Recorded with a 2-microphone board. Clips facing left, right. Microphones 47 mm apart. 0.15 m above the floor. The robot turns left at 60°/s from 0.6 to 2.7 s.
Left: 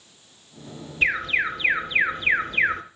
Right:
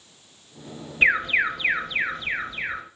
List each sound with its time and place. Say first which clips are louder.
1.0 s an alarm: right 3 dB; 140° right, 3 m; by 2.8 s 115° left, 3 m